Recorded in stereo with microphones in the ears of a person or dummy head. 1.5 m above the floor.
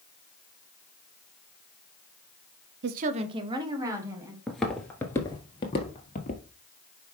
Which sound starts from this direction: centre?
Footsteps, at 4.5 s.